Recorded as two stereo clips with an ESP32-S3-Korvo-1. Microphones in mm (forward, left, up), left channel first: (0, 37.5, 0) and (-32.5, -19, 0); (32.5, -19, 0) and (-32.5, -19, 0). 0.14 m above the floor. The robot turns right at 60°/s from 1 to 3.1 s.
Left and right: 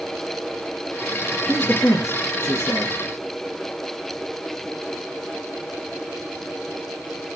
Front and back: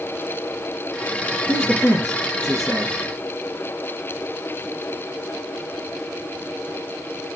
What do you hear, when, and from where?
1.5 s a man speaking: 15° left, 2 m; by 3.0 s 105° left, 2 m